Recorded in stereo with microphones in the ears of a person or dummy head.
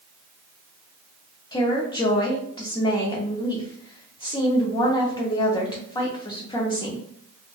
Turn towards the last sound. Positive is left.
turn(degrees=25)  # may be behind; listen again after turning